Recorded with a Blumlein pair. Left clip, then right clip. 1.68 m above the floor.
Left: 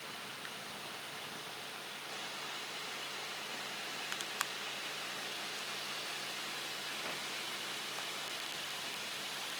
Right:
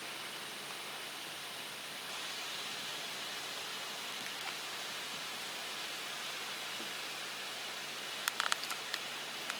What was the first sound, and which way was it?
Only background noise.